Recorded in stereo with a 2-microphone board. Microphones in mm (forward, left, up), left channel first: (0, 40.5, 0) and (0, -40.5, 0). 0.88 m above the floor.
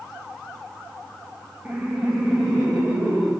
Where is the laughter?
15° right (ahead or behind), 0.8 m; by 3.3 s centre (ahead or behind), 2 m.